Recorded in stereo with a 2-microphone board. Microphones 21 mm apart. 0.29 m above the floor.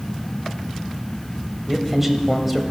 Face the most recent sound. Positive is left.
turn(degrees=-10)  # may be behind; listen again after turning